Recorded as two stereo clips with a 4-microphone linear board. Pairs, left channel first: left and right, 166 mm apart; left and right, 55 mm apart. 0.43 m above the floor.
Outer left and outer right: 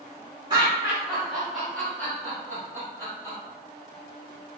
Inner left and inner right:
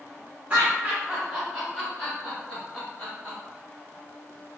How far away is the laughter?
About 0.9 m.